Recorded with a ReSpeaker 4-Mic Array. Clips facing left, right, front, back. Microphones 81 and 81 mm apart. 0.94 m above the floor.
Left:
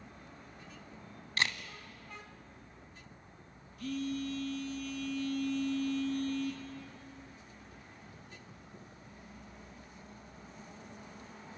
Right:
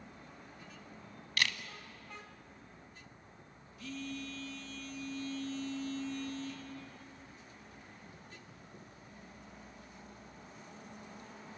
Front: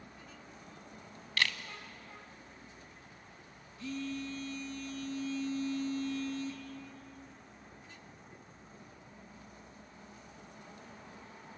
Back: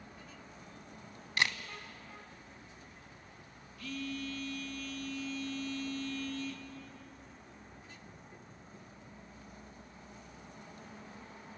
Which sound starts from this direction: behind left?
A camera shutter, at 1.4 s.